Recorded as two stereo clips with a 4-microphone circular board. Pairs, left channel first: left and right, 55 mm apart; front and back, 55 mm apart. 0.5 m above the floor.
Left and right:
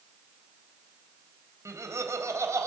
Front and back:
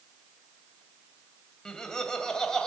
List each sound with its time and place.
1.6 s laughter: 75° right, 3 m